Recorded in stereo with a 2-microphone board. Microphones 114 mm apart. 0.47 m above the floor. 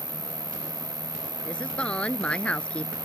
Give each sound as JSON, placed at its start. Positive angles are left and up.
{"t": 0.0, "sound": "an insect", "side_deg": 50}
{"t": 1.4, "sound": "a woman speaking", "side_deg": 10}